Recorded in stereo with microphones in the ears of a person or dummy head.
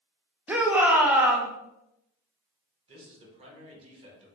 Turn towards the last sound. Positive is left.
turn(degrees=-30)  # may be behind; listen again after turning